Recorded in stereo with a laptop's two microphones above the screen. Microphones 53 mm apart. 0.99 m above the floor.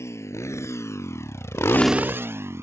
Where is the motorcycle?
65° left (ahead or behind); by 2.6 s 55° right (ahead or behind).